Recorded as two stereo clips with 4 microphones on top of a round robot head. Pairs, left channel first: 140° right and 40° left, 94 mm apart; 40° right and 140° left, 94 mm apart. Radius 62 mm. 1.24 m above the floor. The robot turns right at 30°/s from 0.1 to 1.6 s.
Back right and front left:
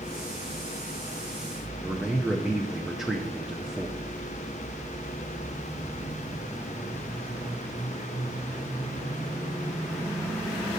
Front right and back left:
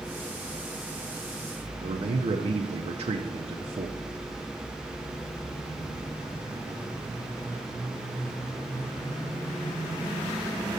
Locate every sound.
1.8 s a man speaking: 125° left, 0.6 m